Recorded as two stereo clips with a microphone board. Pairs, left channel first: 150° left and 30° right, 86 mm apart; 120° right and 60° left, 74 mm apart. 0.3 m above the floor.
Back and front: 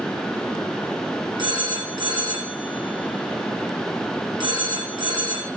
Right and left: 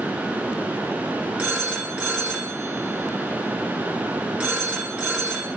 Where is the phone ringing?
10° right, 3 m.